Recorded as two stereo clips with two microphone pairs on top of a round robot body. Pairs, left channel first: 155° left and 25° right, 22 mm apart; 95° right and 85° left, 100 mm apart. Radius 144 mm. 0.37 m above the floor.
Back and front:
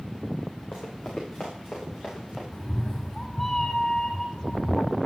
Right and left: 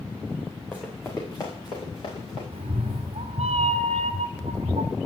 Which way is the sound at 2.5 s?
90° left.